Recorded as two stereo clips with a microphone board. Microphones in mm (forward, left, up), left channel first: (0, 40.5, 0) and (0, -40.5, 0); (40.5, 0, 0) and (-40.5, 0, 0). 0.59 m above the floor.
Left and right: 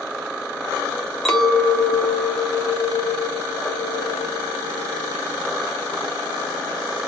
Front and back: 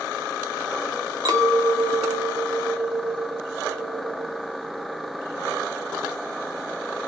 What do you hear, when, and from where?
1.2 s a clink: 175° left, 1.0 m